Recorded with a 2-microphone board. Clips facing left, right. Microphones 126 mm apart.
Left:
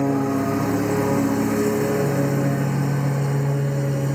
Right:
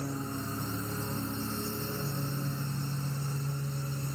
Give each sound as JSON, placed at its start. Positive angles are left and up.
{"t": 0.0, "sound": "a lawn mower", "side_deg": 65}